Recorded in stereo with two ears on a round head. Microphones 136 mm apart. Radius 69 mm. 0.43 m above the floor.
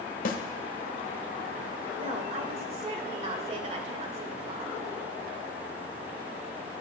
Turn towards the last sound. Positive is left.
turn(degrees=-40)  # may be behind; listen again after turning